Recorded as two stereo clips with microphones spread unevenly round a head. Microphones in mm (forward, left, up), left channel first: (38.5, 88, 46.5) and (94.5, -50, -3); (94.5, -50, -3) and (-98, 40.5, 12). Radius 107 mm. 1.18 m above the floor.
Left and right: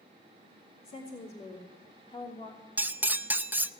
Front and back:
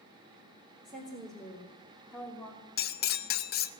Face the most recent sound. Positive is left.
turn(degrees=20)